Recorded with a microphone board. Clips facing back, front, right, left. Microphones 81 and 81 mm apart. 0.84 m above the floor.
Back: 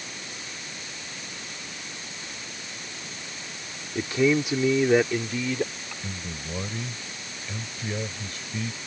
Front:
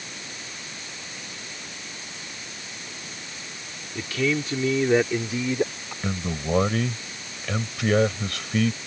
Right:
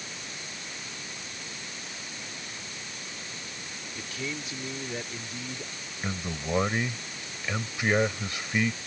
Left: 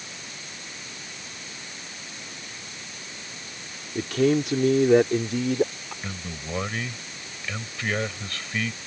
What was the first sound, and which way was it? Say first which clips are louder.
A man speaking: back 3 dB, left 16 dB; 120° left.